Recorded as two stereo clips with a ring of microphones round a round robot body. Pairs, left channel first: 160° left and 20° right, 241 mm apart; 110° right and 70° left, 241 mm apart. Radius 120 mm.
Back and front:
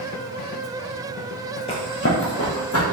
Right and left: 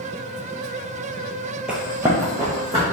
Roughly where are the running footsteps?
Behind left.